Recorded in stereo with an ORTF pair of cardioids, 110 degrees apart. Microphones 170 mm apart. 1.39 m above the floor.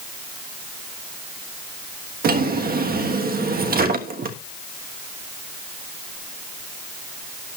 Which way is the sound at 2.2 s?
65° right.